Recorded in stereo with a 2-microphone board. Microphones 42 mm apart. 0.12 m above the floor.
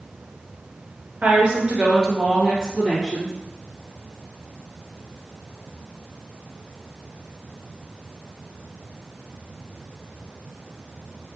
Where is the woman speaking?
35° right (ahead or behind), 1.3 m; by 3.3 s 5° right (ahead or behind), 2.5 m.